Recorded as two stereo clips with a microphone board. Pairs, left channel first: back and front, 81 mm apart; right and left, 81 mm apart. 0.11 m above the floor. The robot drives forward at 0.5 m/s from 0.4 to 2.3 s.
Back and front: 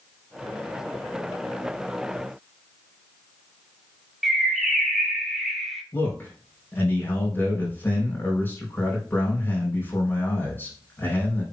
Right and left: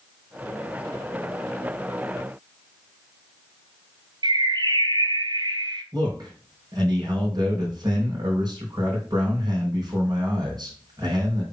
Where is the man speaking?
115° left, 6 m.